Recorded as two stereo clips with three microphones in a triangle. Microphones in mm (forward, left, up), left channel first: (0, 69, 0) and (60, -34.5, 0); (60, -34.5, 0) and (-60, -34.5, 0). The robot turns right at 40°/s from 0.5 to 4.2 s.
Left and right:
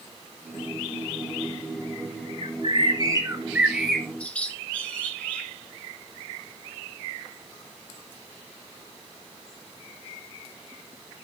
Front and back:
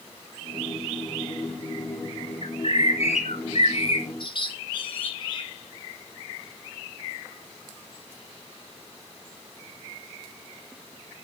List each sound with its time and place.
2.4 s a bird: 30° right, 2.5 m; by 5.5 s 40° left, 2.5 m